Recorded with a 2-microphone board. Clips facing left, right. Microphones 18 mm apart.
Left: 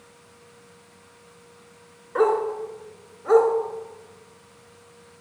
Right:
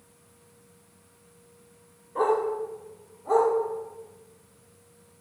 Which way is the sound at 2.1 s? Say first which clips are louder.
Left 3 dB; 80° left.